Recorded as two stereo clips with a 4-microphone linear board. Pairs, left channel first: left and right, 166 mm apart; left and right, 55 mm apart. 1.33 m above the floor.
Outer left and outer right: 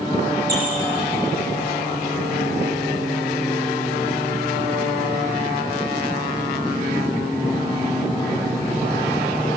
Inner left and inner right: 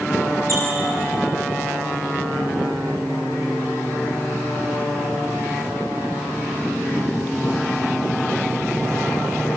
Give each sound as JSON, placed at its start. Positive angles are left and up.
{"t": 0.5, "sound": "a squeak", "side_deg": -65, "distance_m": 8.5}